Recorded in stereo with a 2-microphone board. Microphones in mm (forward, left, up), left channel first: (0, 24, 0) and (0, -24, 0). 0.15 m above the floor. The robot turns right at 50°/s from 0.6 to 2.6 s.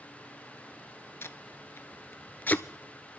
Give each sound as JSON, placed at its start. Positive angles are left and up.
{"t": 1.2, "sound": "tape being pulled", "side_deg": 60, "distance_m": 0.5}